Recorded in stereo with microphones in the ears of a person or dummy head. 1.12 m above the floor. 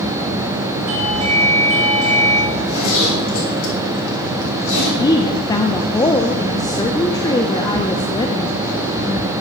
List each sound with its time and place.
0.9 s a doorbell: 80° right, 5.5 m
2.5 s a zipper: 85° left, 4 m
5.0 s a woman speaking: 10° left (ahead or behind), 0.5 m